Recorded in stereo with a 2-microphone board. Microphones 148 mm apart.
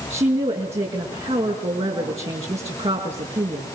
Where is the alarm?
I don't hear an alarm.